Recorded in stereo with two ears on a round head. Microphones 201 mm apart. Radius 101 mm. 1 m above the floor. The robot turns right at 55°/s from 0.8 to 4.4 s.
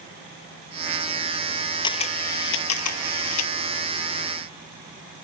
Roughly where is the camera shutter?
Ahead.